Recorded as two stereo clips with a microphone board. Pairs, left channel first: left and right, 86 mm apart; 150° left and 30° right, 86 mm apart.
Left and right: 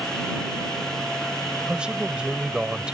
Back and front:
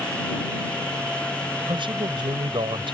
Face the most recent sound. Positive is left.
turn(degrees=-10)